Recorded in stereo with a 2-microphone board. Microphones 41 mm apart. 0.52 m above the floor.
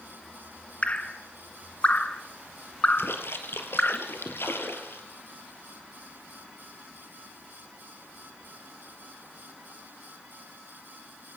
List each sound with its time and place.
0.8 s dripping: 35° left (ahead or behind), 1.6 m
3.0 s a splash: 75° left (ahead or behind), 3.5 m